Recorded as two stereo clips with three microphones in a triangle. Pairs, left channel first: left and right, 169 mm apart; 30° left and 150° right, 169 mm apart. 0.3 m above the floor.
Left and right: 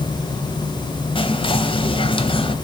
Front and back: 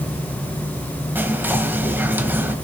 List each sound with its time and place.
1.1 s whispering: 135° left, 1.3 m